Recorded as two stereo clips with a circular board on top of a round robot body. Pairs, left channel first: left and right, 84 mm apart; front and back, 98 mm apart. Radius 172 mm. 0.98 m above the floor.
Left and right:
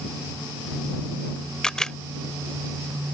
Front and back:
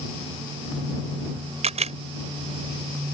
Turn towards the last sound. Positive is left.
turn(degrees=175)